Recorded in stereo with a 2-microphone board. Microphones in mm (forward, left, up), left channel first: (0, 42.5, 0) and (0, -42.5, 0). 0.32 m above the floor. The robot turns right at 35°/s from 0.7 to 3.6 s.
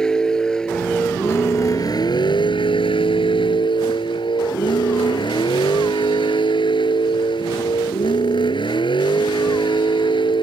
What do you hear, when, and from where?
0.0 s a vehicle: 10° left; by 10.4 s 110° left